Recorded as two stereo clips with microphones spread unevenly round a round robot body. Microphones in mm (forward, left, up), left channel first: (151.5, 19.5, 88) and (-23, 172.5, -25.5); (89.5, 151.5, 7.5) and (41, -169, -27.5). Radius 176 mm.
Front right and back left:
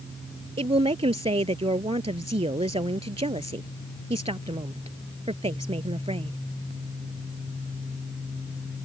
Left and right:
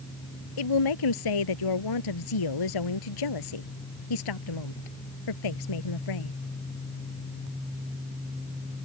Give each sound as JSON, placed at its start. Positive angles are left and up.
{"t": 0.6, "sound": "a woman speaking", "azimuth_deg": 70}